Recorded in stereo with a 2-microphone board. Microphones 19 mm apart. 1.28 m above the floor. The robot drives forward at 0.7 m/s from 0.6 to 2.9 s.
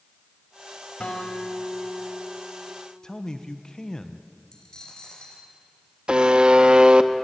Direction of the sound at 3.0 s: 35° left (ahead or behind).